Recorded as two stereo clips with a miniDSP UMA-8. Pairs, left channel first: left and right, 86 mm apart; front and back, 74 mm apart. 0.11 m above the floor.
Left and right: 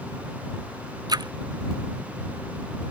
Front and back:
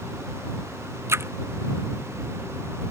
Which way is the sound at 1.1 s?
130° right.